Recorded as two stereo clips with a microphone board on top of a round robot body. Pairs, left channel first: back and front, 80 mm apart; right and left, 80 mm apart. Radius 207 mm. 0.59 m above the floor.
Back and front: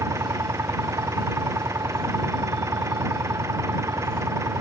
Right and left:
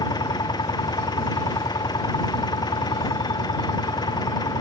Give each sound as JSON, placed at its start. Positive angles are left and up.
{"t": 0.0, "sound": "an engine running", "azimuth_deg": -55}